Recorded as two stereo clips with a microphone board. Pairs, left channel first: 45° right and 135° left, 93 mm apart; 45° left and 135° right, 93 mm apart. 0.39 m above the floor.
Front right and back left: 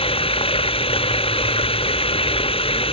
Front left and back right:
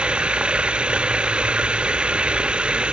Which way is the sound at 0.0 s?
55° right.